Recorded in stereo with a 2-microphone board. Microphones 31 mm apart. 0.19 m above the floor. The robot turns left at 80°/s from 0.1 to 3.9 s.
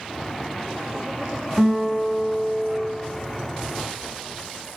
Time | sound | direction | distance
1.6 | a guitar | 165° right | 0.9 m